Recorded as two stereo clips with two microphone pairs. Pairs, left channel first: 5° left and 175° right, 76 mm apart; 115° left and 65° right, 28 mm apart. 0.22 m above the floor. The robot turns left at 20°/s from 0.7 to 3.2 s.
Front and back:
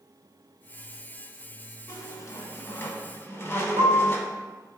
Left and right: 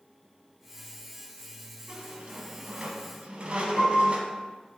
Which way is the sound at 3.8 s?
55° left.